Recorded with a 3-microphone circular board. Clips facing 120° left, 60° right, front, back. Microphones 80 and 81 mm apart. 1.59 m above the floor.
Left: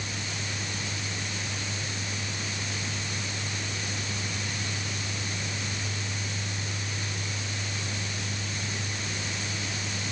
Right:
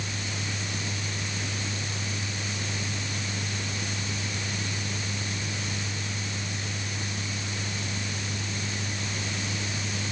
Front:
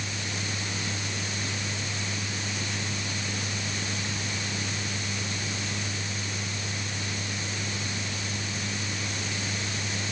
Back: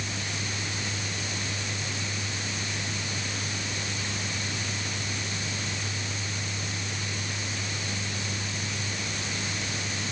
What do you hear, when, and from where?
Only background noise.